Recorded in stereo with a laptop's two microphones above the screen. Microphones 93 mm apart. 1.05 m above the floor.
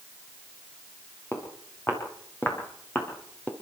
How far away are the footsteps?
About 6.5 m.